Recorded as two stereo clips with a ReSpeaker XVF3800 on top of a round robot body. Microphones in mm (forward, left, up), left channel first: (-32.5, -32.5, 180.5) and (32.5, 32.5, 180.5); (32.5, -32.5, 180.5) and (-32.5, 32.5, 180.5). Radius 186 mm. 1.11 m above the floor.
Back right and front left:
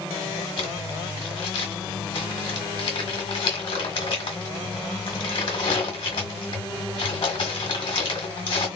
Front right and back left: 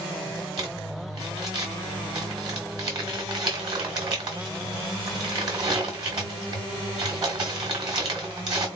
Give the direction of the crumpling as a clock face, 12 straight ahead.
6 o'clock.